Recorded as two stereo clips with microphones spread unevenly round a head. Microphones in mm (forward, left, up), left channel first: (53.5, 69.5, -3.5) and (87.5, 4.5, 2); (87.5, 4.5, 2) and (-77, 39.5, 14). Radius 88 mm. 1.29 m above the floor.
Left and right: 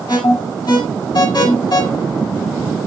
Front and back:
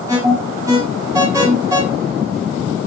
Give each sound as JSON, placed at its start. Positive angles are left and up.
{"t": 0.1, "sound": "an alarm", "azimuth_deg": 100, "distance_m": 7.5}